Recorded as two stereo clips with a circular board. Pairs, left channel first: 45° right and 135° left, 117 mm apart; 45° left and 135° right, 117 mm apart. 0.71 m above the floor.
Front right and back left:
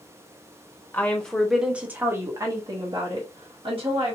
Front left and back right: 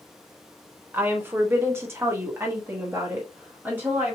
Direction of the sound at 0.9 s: 95° right.